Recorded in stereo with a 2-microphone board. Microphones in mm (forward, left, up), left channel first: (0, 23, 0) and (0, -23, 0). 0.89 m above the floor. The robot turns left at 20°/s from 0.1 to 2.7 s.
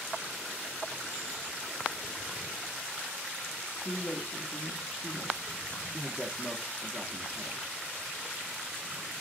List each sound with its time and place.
3.6 s a woman speaking: 45° left (ahead or behind), 1.5 m
5.9 s a man speaking: 20° right (ahead or behind), 1.8 m